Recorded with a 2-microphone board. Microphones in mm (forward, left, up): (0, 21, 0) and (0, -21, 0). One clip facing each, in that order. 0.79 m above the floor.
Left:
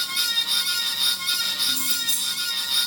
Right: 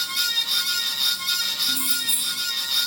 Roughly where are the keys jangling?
Right.